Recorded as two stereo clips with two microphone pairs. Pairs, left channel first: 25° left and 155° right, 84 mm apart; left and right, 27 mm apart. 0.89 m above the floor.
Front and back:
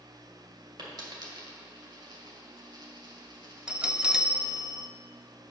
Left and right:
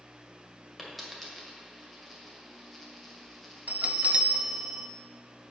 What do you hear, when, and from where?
0.8 s a dropped coin: 175° left, 1.9 m
3.7 s a bell: 75° right, 0.5 m